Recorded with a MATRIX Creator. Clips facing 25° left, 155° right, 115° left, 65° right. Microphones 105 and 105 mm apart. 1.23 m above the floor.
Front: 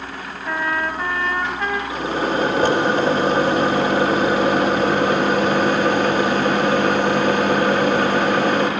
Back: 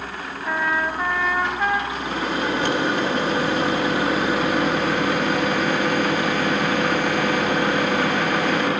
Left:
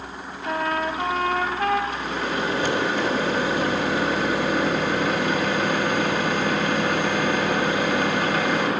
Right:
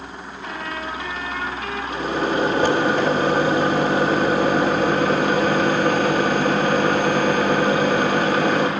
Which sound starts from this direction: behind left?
A trumpet, at 0.5 s.